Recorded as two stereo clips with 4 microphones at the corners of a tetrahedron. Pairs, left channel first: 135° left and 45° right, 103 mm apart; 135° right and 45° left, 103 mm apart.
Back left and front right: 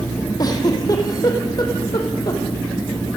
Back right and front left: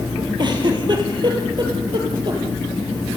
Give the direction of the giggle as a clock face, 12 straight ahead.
9 o'clock.